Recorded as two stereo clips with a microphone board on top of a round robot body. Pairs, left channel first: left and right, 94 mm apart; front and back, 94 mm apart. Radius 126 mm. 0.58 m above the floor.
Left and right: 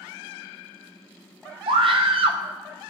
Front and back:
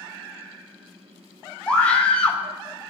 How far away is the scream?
About 3 m.